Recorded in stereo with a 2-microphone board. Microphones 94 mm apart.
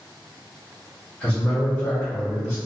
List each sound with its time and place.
1.2 s a man speaking: 15° left (ahead or behind), 0.8 m; by 2.5 s 25° left (ahead or behind), 1.6 m